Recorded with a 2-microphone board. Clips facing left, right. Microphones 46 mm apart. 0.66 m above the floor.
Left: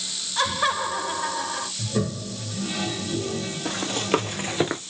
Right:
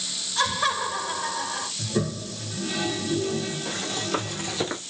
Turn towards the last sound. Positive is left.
turn(degrees=10)  # may be behind; listen again after turning